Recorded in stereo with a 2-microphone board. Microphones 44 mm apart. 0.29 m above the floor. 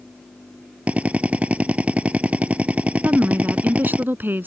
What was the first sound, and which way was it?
A drill, 30° right (ahead or behind).